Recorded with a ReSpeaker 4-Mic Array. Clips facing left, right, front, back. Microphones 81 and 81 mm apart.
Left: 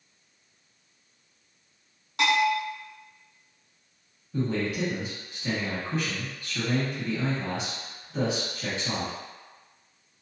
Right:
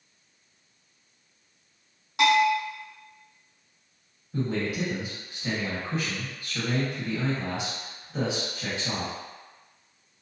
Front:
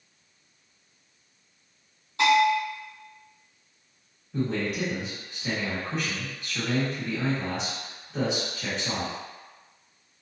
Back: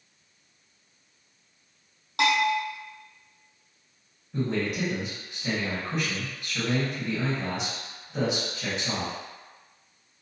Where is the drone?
No drone in this recording.